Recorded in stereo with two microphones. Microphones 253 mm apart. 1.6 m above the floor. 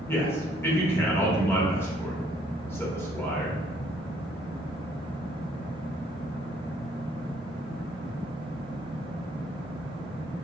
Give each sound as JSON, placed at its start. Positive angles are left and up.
{"t": 0.1, "sound": "a man speaking", "side_deg": 10, "distance_m": 0.8}